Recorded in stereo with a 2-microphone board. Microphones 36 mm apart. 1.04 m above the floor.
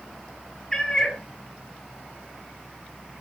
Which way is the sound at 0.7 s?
10° left (ahead or behind).